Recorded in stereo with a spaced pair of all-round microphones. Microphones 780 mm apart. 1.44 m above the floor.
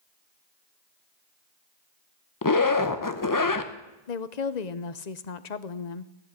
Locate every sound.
2.4 s a zipper: 25° left (ahead or behind), 0.8 m
4.1 s a woman speaking: 60° left (ahead or behind), 0.9 m